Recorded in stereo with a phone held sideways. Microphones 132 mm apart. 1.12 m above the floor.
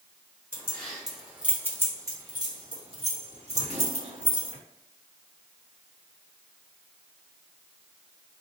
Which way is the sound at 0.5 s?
15° left (ahead or behind).